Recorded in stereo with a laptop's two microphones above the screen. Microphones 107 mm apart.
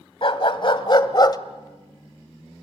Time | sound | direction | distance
0.2 | a dog barking | 55° left (ahead or behind) | 2 m